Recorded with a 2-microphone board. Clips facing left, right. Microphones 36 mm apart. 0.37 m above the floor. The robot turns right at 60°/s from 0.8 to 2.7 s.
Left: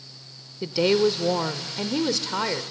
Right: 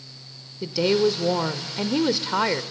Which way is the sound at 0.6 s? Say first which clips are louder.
Even; 10° left (ahead or behind).